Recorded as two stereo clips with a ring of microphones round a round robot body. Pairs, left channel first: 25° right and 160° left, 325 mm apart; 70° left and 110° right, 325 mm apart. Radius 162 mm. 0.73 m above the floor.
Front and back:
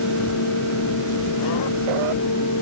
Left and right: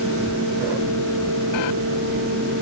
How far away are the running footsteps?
I don't hear running footsteps.